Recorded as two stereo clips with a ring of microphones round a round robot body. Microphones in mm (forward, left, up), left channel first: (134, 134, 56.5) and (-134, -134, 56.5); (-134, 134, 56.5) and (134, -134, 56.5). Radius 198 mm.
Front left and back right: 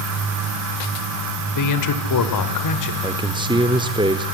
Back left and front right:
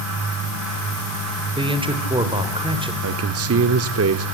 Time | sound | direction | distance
1.6 | a man speaking | 30° left | 2.0 m
3.0 | a man speaking | 65° right | 0.9 m